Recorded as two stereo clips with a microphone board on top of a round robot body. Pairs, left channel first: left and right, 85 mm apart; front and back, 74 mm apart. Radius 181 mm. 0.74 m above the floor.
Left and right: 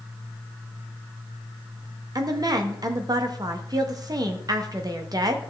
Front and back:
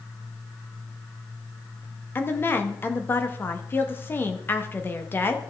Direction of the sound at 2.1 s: 55° right.